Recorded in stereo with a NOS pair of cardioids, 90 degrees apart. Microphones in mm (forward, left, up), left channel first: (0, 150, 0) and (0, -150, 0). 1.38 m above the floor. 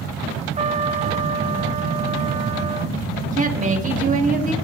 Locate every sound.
0.6 s a trumpet: 25° right, 0.5 m
3.3 s a woman speaking: 25° right, 1.9 m